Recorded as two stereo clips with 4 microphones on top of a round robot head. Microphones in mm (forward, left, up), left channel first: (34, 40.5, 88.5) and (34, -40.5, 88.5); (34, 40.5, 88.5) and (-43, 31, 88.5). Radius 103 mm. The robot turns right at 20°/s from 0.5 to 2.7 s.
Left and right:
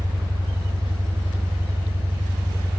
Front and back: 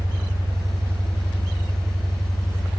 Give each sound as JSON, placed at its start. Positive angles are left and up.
{"t": 0.0, "sound": "an engine running", "azimuth_deg": -120, "distance_m": 0.8}